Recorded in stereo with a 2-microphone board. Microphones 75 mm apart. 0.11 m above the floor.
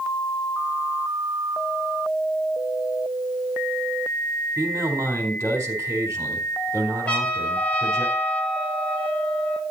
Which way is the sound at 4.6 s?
35° right (ahead or behind).